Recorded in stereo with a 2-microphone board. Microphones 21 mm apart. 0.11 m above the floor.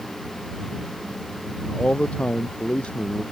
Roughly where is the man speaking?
Left.